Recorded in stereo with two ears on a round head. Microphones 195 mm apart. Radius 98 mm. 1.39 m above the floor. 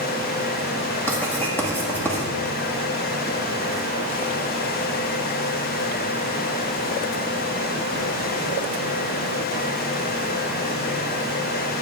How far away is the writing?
About 1.9 m.